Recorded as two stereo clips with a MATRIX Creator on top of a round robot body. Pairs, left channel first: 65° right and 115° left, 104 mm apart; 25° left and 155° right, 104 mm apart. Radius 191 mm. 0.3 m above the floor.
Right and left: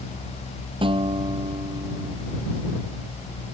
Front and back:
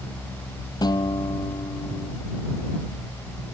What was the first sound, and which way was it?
A guitar, 75° left.